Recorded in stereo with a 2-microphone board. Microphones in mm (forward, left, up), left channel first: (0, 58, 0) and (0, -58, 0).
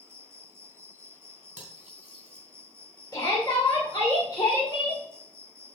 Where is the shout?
30° left (ahead or behind), 2 m.